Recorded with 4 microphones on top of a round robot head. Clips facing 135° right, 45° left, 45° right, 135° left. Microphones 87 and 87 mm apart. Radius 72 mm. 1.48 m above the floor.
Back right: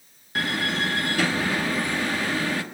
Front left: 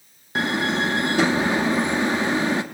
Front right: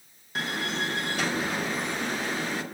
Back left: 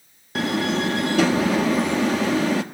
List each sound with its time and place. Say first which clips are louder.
0.3 s a door slam: front left 4 dB, back left 8 dB; 115° left, 1.8 m